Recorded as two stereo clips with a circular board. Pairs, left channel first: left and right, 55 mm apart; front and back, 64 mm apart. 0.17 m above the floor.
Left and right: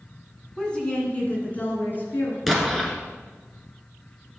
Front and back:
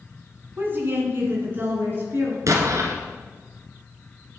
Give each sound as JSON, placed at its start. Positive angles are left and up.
{"t": 0.6, "sound": "a woman speaking", "azimuth_deg": 160, "distance_m": 1.9}
{"t": 2.5, "sound": "an explosion", "azimuth_deg": 180, "distance_m": 1.5}